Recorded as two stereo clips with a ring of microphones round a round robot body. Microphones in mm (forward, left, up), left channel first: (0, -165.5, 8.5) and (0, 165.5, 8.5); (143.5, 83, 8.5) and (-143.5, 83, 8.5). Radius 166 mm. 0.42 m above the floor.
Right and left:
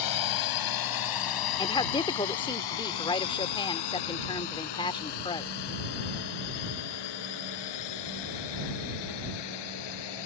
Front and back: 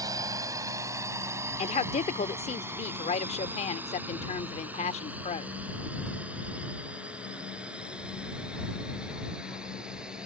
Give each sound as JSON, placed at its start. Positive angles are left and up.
{"t": 0.0, "sound": "a drone", "azimuth_deg": -100}
{"t": 1.6, "sound": "a woman speaking", "azimuth_deg": -35}